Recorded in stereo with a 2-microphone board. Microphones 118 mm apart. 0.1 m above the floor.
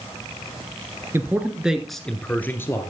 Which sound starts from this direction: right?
A man speaking, at 1.1 s.